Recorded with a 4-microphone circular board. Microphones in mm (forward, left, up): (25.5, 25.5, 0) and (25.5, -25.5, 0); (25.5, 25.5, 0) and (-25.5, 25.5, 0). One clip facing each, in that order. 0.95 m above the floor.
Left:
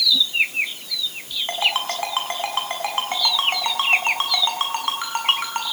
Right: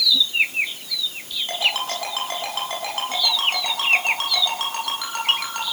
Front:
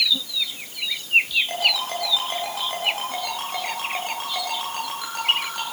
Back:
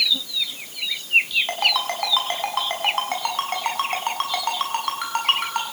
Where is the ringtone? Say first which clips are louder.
Left 1 dB, back 1 dB; 150° left, 6.5 m.